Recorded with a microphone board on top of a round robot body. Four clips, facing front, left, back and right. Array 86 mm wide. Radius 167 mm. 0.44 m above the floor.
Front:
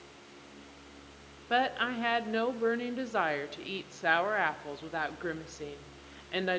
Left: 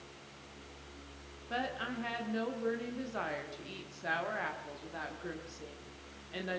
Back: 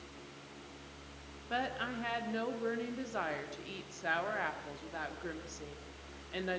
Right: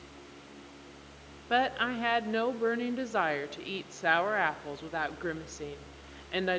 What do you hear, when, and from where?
1.5 s a woman speaking: 50° right, 1.4 m